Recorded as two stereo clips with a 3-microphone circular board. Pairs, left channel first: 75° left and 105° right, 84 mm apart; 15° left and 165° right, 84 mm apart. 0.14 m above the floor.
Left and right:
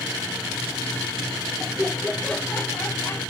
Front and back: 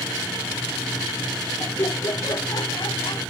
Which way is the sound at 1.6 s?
20° right.